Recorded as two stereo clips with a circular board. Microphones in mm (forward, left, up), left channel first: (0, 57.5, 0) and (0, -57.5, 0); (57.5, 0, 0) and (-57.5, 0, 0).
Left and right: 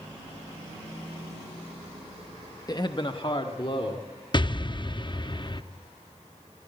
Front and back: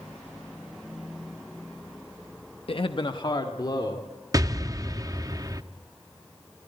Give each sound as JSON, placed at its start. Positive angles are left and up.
{"t": 2.7, "sound": "a man speaking", "azimuth_deg": 35, "distance_m": 0.7}
{"t": 4.3, "sound": "an explosion", "azimuth_deg": 125, "distance_m": 0.6}